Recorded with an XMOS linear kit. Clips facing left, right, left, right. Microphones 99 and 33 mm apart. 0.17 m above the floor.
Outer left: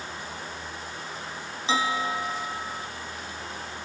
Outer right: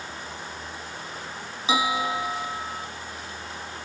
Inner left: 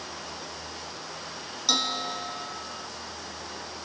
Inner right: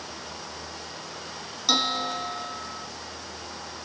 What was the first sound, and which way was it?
A bell, 15° right (ahead or behind).